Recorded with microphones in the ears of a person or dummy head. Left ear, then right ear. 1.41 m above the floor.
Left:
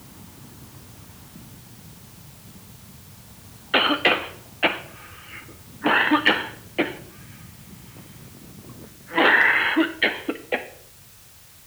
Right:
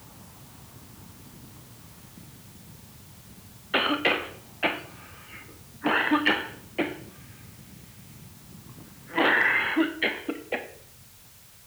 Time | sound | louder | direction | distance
3.7 | a cough | left 5 dB | 5° left (ahead or behind) | 0.9 m